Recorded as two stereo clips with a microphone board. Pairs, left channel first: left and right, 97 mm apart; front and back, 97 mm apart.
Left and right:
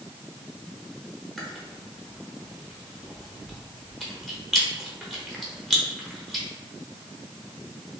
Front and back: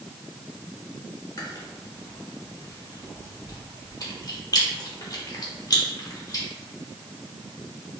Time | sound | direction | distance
1.4 | chewing | straight ahead | 1.0 m